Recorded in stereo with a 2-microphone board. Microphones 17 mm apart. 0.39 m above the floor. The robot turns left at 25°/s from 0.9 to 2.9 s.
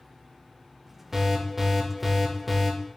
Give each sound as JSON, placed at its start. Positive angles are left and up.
{"t": 1.1, "sound": "an alarm", "azimuth_deg": -145, "distance_m": 0.6}